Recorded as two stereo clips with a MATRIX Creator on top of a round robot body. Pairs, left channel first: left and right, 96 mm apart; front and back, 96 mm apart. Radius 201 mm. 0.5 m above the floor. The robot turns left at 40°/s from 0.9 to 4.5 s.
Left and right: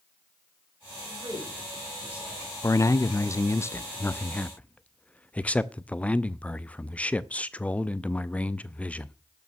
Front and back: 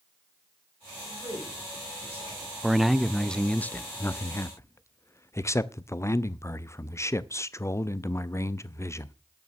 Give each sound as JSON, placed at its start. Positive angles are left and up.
{"t": 1.0, "sound": "a man speaking", "azimuth_deg": -120, "distance_m": 6.5}
{"t": 2.6, "sound": "a man speaking", "azimuth_deg": 100, "distance_m": 0.7}